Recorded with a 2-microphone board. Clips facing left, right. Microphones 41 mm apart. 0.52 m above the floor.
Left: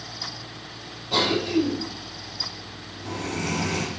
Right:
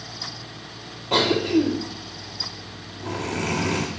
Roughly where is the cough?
Right.